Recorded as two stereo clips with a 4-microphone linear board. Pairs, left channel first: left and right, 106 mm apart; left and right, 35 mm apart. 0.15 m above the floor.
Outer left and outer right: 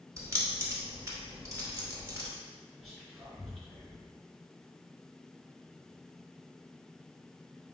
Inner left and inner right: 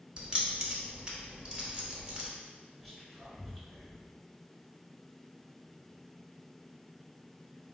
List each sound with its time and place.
0.2 s keys jangling: 25° right (ahead or behind), 0.9 m
2.8 s whispering: centre (ahead or behind), 1.9 m